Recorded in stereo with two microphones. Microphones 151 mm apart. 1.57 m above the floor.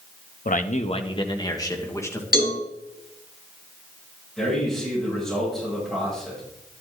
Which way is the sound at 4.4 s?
Centre (ahead or behind).